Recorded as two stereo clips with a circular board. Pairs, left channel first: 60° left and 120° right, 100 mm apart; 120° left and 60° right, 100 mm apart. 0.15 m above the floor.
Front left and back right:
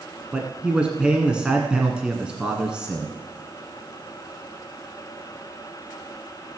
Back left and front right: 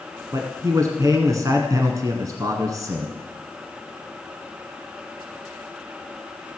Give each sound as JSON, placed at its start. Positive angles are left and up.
{"t": 0.3, "sound": "a man speaking", "azimuth_deg": -50, "distance_m": 1.5}